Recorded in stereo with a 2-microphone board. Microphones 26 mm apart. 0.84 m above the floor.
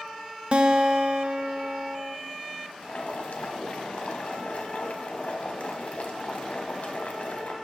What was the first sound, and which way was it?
A guitar, 45° right (ahead or behind).